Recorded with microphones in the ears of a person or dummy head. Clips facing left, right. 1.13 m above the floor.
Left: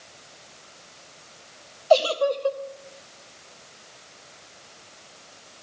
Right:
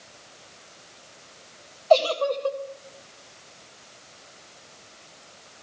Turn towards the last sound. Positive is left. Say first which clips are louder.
# even
turn(degrees=10)  # may be behind; listen again after turning